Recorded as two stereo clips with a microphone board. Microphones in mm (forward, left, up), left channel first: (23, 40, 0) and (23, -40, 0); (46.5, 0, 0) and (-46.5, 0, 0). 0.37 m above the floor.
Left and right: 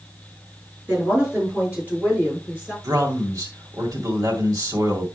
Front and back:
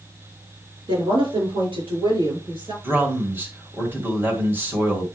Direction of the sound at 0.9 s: 165° right.